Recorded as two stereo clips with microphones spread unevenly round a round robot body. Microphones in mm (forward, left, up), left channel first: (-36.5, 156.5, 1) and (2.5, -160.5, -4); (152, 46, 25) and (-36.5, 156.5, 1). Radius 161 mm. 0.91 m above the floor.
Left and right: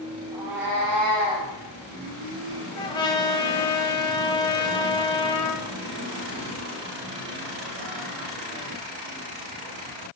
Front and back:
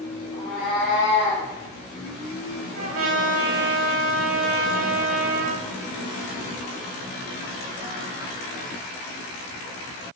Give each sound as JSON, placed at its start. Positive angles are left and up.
{"t": 0.3, "sound": "a cat meowing", "azimuth_deg": -75, "distance_m": 3.0}
{"t": 2.8, "sound": "a trumpet", "azimuth_deg": 170, "distance_m": 1.0}